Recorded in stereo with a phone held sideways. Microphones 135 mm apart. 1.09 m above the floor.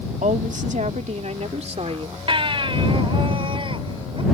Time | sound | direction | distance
0.2 | a woman speaking | 70° right (ahead or behind) | ?
2.3 | a baby crying | 40° right (ahead or behind) | ?